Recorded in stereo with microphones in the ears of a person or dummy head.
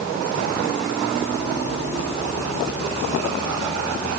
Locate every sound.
Only background noise.